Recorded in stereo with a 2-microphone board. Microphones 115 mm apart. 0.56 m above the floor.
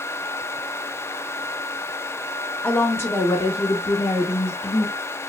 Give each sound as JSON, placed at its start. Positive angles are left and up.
{"t": 2.6, "sound": "a woman speaking", "side_deg": 10, "distance_m": 0.7}